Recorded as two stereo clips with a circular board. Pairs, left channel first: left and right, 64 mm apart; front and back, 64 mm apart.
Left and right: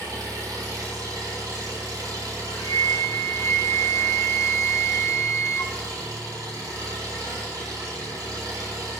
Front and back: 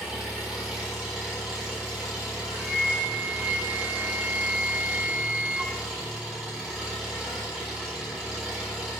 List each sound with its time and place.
0.0 s an engine running: 95° right, 3.5 m
2.5 s a flute: 125° left, 0.9 m